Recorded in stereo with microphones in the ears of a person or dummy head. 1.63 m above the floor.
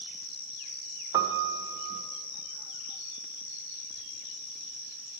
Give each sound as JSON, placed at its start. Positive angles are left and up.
{"t": 1.1, "sound": "a piano", "side_deg": -20, "distance_m": 0.7}